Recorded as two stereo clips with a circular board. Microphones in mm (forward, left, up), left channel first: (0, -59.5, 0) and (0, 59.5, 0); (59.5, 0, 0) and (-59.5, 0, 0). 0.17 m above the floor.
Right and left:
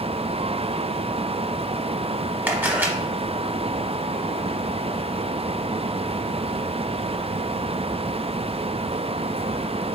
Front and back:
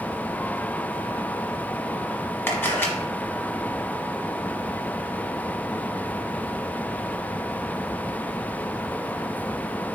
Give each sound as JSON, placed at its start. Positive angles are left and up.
{"t": 2.5, "sound": "a camera shutter", "azimuth_deg": 40, "distance_m": 1.0}